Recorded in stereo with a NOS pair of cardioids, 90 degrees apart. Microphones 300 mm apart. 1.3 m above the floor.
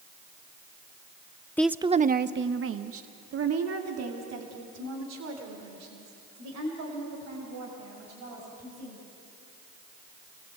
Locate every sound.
1.6 s a woman speaking: 5° left, 0.6 m; by 9.0 s 70° right, 8 m